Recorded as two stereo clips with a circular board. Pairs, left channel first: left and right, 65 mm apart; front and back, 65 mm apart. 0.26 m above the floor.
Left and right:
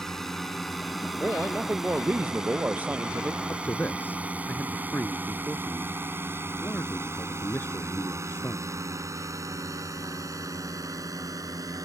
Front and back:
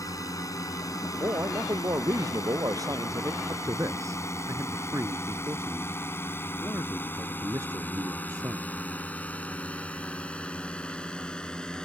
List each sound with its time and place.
0.0 s a drone: 5° left; by 11.8 s 75° right
1.2 s a man speaking: 155° right
3.5 s a man speaking: 145° left